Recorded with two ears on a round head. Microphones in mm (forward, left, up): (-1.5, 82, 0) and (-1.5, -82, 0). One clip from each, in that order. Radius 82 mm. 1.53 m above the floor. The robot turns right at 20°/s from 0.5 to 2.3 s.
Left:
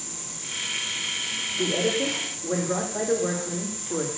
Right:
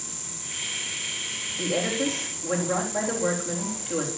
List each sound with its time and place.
1.6 s a woman speaking: 80° right, 3.5 m; by 4.1 s 65° right (ahead or behind), 3.5 m